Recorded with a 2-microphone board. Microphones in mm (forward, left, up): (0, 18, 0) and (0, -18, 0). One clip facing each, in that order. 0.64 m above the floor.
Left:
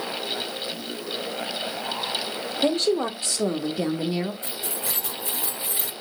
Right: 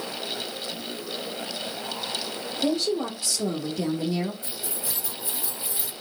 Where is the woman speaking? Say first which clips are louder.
Left 3 dB; 60° left (ahead or behind), 1.5 m; by 4.3 s 25° left (ahead or behind), 1.3 m.